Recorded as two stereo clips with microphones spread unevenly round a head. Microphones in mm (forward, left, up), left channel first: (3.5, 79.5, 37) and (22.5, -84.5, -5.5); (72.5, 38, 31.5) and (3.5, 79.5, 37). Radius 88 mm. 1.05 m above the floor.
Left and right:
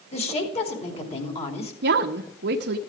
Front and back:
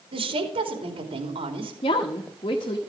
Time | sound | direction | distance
0.1 | a woman speaking | 155° left | 3 m
1.8 | a woman speaking | 75° right | 1.1 m